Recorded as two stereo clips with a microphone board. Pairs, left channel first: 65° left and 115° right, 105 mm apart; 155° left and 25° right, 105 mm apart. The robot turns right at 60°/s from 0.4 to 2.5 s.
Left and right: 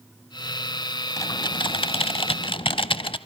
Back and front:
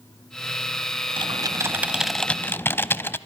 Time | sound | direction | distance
1.2 | typing on a keyboard | 10° left | 0.5 m